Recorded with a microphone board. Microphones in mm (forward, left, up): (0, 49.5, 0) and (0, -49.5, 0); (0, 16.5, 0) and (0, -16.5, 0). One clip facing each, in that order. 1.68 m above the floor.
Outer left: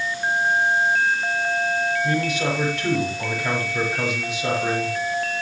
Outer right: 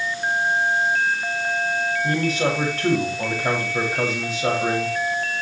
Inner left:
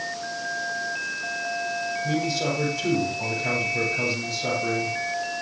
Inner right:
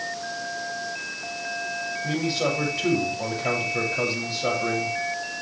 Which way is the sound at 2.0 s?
35° right (ahead or behind).